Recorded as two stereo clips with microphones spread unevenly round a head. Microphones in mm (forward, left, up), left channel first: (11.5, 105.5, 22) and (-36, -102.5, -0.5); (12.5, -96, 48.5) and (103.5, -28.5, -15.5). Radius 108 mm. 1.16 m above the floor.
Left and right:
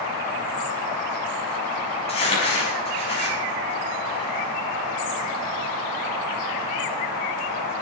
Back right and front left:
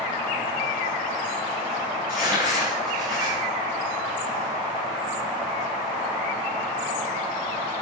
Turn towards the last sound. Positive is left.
turn(degrees=140)